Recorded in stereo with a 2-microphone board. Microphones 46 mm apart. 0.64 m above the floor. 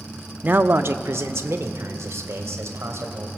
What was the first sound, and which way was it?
A man speaking, 35° right (ahead or behind).